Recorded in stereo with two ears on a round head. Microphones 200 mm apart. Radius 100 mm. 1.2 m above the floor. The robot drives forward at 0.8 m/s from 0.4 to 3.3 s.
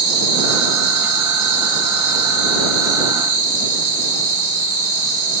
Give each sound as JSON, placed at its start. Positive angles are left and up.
{"t": 0.0, "sound": "an insect", "side_deg": -65, "distance_m": 4.5}